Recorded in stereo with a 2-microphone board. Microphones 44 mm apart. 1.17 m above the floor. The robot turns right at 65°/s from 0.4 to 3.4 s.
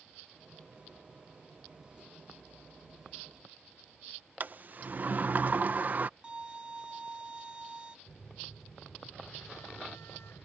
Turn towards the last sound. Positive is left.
turn(degrees=75)  # may be behind; listen again after turning